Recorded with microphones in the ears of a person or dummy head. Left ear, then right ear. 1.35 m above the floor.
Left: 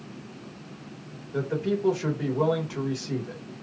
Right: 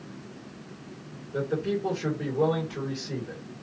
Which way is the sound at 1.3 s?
40° left (ahead or behind).